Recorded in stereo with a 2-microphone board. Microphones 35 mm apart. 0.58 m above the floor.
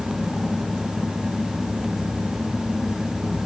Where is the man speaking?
I don't hear a man speaking.